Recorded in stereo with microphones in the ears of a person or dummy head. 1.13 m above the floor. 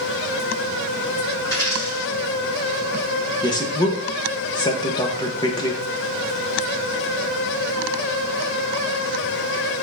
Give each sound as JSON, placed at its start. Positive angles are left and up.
{"t": 1.4, "sound": "a dropped coin", "side_deg": 25, "distance_m": 4.0}
{"t": 3.4, "sound": "a man speaking", "side_deg": 25, "distance_m": 1.0}